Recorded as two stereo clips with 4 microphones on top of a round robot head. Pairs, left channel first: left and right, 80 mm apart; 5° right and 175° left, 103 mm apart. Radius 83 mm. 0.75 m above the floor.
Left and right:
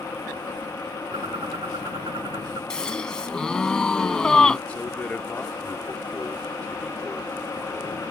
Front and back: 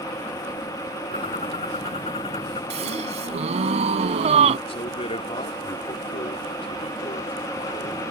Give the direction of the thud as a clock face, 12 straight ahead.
I don't hear a thud.